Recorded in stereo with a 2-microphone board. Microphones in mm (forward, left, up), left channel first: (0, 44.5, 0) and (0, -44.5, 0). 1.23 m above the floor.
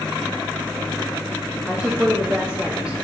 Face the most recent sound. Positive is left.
turn(degrees=-10)  # may be behind; listen again after turning